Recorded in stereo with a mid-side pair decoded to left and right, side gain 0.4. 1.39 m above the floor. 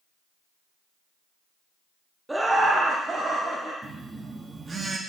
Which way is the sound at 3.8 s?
40° right.